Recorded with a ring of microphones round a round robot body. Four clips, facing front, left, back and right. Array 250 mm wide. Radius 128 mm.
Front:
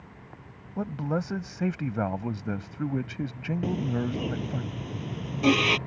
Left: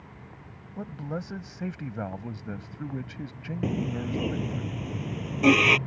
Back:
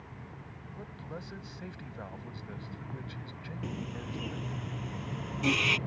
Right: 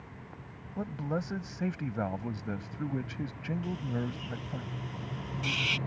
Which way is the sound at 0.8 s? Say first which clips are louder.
Right 1 dB, front 15 dB; straight ahead.